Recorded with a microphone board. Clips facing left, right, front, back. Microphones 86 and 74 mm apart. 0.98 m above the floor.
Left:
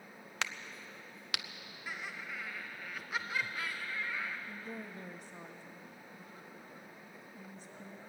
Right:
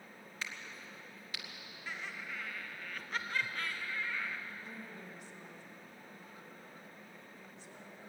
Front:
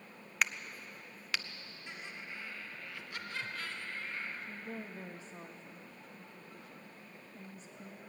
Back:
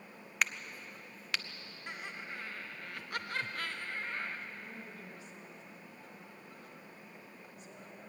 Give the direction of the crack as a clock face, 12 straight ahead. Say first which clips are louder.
Left 5 dB, even; 9 o'clock.